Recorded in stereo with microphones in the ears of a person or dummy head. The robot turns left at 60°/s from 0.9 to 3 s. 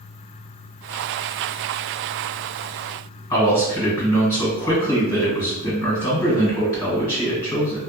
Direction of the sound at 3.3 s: 20° left (ahead or behind).